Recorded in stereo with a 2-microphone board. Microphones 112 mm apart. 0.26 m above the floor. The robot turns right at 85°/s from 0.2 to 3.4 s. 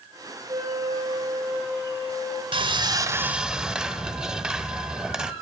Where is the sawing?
85° right, 0.7 m; by 5.3 s 10° right, 0.7 m.